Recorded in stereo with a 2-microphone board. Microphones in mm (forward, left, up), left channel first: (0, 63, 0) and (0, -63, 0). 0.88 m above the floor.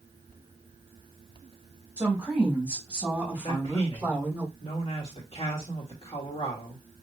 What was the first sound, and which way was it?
A woman speaking, 10° right (ahead or behind).